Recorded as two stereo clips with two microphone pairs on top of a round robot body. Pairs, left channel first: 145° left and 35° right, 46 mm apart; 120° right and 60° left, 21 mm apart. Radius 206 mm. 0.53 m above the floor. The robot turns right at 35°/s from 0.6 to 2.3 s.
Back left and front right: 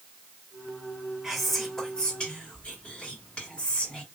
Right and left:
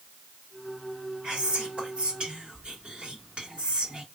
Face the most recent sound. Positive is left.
turn(degrees=90)